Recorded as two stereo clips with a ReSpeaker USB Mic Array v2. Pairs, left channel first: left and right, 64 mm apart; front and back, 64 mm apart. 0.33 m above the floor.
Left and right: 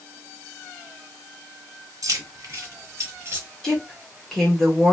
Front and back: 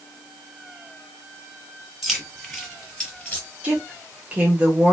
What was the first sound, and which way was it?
Keys jangling, 90° right.